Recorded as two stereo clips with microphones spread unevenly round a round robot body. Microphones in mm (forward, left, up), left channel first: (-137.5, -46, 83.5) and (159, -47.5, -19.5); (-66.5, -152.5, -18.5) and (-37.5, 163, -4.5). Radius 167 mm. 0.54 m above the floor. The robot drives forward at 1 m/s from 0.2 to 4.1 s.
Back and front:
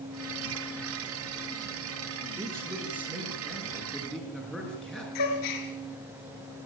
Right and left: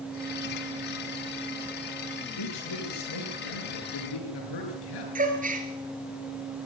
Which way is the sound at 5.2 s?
150° left.